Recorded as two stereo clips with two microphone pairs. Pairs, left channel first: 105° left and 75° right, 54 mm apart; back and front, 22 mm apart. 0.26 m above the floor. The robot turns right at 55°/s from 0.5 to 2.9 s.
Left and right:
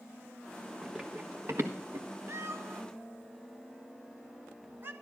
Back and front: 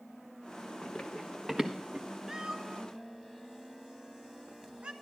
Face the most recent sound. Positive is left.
turn(degrees=-35)